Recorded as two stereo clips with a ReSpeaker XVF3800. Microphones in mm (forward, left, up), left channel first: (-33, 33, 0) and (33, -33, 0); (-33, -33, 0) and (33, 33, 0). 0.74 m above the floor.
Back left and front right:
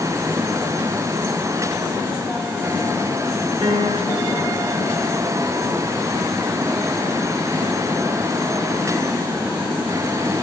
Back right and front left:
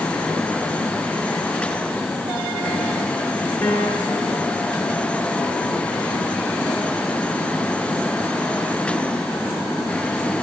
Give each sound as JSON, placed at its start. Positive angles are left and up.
{"t": 3.6, "sound": "a piano", "azimuth_deg": -65, "distance_m": 7.5}